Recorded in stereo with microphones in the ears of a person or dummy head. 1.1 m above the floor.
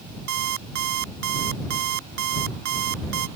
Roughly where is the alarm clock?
Right.